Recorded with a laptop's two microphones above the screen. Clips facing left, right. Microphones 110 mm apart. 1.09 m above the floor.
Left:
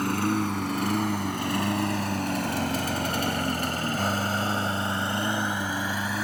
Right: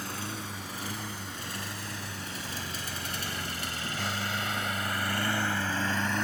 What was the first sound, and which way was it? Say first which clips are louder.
A lawn mower: left 13 dB; 65° left (ahead or behind).